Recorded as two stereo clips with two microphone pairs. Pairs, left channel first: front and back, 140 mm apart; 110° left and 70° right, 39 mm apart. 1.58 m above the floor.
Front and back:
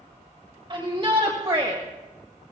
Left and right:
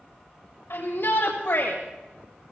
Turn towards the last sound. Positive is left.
turn(degrees=115)